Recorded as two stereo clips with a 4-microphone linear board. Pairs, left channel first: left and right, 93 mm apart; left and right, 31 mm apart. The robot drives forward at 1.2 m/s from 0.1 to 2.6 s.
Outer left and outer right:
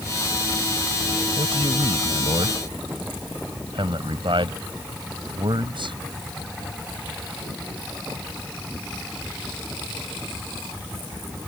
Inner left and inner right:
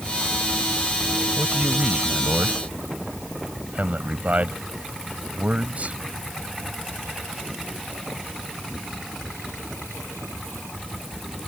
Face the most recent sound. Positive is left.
turn(degrees=-60)  # may be behind; listen again after turning